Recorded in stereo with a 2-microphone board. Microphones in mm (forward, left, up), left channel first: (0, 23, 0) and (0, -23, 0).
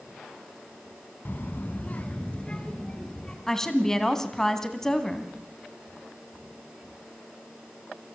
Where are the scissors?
I don't hear scissors.